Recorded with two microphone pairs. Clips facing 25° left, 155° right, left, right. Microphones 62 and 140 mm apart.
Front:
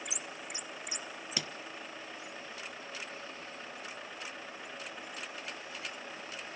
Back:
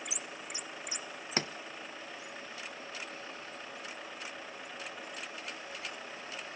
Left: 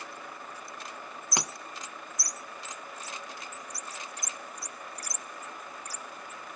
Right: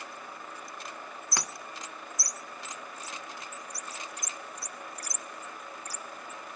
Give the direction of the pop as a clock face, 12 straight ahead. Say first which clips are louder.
Back 6 dB, left 3 dB; 7 o'clock.